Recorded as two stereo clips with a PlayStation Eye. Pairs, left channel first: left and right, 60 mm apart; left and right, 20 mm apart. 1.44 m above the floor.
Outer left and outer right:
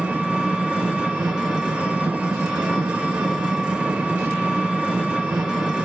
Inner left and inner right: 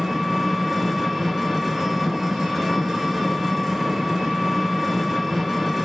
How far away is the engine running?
About 1.2 m.